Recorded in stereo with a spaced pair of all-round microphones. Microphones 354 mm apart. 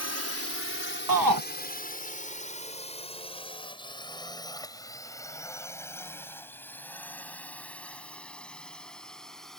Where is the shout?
70° right (ahead or behind).